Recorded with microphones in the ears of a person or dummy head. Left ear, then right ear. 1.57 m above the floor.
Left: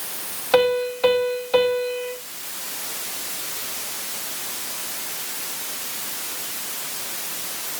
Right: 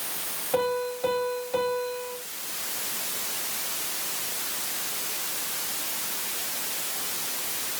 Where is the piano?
60° left (ahead or behind), 2 m.